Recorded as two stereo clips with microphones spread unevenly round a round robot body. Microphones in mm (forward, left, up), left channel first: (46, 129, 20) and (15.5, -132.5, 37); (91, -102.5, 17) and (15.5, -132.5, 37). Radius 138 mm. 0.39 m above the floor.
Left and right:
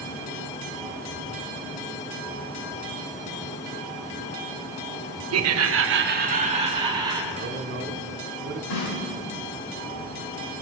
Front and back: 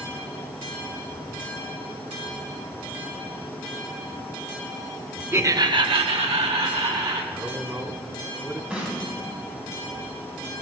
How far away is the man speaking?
About 1.6 m.